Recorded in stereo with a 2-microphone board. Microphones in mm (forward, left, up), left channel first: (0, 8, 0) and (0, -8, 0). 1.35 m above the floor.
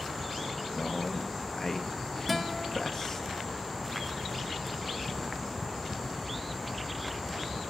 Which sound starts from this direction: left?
A man speaking, at 0.8 s.